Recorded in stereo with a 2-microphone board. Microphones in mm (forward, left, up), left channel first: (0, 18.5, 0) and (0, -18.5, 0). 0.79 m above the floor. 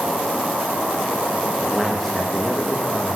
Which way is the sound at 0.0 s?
20° right (ahead or behind).